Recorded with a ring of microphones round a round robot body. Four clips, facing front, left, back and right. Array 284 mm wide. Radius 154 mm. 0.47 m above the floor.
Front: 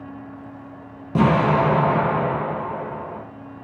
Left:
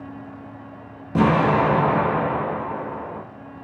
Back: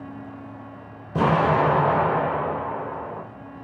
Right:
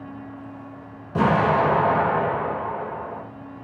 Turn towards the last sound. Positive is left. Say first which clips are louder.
# left 1 dB, front 2 dB
turn(degrees=30)